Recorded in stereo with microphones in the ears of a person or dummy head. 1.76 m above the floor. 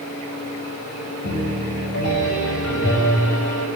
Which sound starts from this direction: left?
A piano, at 1.2 s.